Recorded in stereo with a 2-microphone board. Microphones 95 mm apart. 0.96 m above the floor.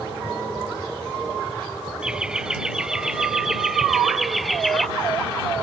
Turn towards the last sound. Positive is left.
turn(degrees=0)  # may be behind; listen again after turning